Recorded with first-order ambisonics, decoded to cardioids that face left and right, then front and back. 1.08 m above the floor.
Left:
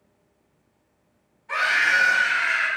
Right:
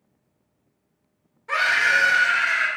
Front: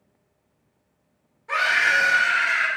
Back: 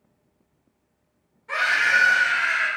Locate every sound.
1.5 s a scream: 90° right, 1.5 m; by 2.7 s 60° right, 1.7 m